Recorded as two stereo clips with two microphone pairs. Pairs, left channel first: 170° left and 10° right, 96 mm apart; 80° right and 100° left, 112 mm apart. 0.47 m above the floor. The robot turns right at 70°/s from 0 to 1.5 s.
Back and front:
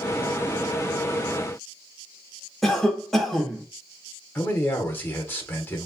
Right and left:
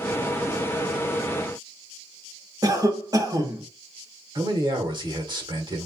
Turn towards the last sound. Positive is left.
turn(degrees=110)